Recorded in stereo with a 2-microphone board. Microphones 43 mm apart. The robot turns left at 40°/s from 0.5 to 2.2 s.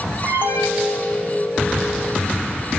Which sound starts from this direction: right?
An alarm, at 0.2 s.